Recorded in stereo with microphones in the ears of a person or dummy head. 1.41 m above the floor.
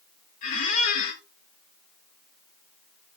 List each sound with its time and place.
0.4 s a squeak: 40° left (ahead or behind), 0.7 m